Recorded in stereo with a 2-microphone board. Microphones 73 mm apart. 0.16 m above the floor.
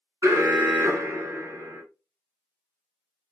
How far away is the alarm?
About 1.1 m.